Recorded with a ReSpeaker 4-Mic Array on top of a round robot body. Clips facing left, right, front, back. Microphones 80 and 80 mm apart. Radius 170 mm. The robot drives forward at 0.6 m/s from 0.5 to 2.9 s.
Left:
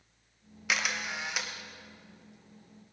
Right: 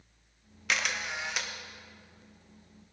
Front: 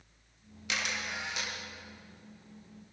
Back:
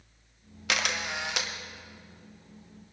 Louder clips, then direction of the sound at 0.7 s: Even, back 5 dB; 175° left.